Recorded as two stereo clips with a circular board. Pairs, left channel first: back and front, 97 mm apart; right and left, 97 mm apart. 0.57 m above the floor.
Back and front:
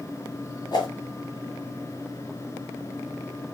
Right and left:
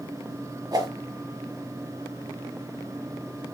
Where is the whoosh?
135° left, 1.7 m.